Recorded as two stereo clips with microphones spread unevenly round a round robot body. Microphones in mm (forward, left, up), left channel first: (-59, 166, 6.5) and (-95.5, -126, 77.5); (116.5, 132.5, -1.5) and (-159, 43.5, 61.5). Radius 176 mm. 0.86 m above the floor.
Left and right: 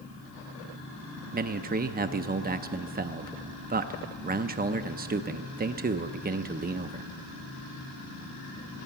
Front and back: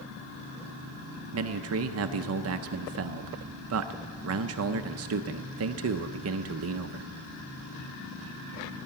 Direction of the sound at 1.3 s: 160° right.